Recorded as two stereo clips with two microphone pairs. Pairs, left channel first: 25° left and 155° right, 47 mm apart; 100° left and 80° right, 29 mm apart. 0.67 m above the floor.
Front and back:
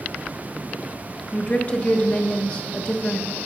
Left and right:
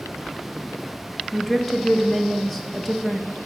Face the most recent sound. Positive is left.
turn(degrees=20)